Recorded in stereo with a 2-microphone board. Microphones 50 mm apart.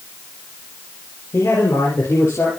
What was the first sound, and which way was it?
A man speaking, 75° left (ahead or behind).